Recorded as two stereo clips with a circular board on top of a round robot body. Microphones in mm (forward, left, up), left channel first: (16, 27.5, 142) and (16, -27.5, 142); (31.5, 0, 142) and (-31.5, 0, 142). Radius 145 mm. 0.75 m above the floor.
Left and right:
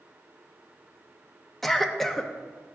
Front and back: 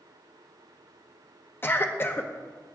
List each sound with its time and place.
1.6 s a cough: 5° left, 1.0 m